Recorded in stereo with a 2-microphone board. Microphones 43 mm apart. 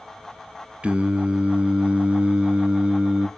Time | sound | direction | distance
0.8 | singing | 30° right (ahead or behind) | 0.6 m